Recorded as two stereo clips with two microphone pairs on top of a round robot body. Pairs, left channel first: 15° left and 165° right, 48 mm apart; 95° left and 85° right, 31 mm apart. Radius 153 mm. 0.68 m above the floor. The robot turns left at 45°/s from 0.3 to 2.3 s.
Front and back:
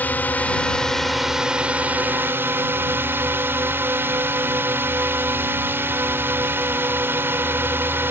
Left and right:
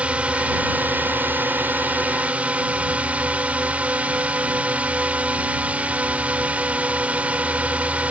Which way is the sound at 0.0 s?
40° right.